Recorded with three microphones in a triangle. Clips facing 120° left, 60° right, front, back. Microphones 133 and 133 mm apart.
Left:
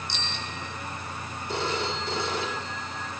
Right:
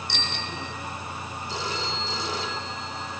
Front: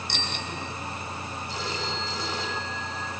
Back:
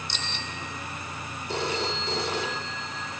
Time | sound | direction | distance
0.1 | a bicycle bell | 30° right | 6 m
1.5 | a phone ringing | 155° left | 6 m